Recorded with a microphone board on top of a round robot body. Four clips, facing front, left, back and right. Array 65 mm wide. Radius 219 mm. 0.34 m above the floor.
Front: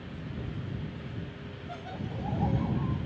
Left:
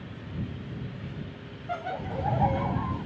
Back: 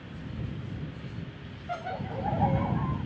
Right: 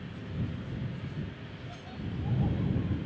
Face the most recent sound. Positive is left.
turn(degrees=115)